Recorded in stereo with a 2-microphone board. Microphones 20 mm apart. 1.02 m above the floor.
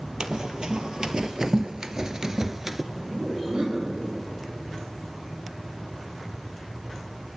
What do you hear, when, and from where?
0.2 s running footsteps: 50° right (ahead or behind), 1.8 m; by 2.8 s 20° right (ahead or behind), 1.1 m
2.9 s laughter: 75° right (ahead or behind), 6.5 m